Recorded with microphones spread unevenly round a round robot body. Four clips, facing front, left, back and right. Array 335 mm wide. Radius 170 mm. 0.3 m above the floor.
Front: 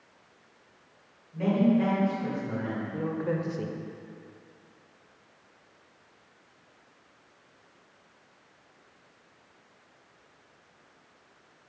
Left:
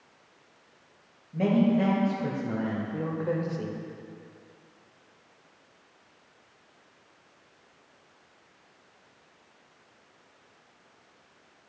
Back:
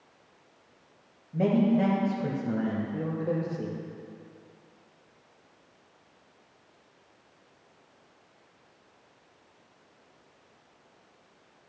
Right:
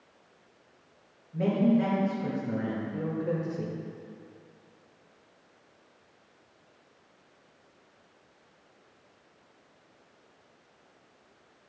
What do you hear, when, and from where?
1.3 s a man speaking: 155° left, 1.7 m; by 3.8 s 15° left, 1.3 m